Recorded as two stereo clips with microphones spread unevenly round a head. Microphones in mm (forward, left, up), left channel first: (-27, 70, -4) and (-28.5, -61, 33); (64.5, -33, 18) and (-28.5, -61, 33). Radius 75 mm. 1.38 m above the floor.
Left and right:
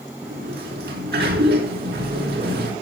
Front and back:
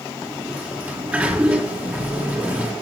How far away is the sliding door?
About 4 m.